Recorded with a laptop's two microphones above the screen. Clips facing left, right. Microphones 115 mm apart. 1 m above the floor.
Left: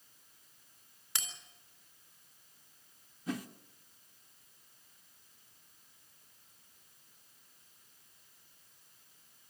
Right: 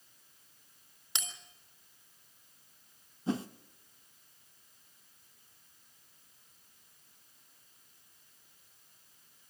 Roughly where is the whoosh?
Right.